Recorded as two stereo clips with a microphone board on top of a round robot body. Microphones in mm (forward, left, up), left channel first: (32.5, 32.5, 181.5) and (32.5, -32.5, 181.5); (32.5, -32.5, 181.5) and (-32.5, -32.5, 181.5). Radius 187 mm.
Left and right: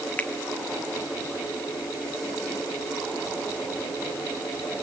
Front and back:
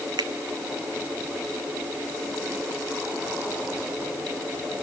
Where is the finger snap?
160° left, 1.0 m.